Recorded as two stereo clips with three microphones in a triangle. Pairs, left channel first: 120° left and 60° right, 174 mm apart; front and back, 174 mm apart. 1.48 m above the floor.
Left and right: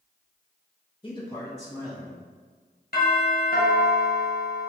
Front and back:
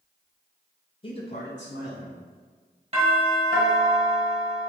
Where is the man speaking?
60° left, 0.6 m; by 2.2 s 20° left, 1.0 m.